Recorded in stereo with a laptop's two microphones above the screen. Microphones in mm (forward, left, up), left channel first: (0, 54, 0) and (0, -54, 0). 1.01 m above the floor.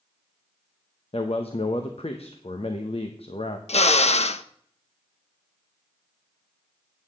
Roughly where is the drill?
Left.